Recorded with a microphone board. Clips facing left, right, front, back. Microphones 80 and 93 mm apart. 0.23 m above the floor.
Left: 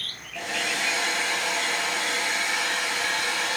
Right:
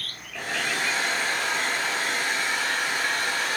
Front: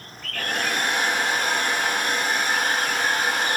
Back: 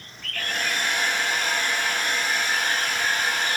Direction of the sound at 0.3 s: 45° right.